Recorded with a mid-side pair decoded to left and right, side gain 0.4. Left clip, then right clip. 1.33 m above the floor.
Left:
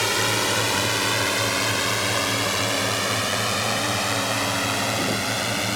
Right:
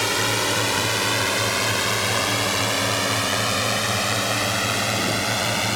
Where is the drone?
5° right; by 5.8 s 20° right.